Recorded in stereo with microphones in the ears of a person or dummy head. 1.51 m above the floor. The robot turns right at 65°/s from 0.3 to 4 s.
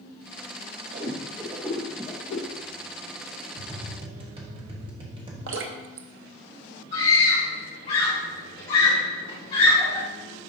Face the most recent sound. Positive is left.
turn(degrees=40)  # may be behind; listen again after turning